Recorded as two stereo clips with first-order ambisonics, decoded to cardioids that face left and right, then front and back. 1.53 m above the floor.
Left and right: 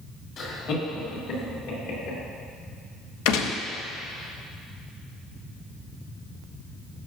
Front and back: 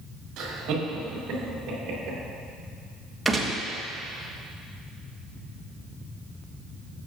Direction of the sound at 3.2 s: 95° left.